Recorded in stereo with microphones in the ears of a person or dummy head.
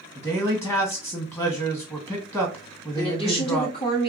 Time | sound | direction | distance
0.1 | a man speaking | 15° left (ahead or behind) | 1.7 m
2.9 | a woman speaking | 35° left (ahead or behind) | 1.2 m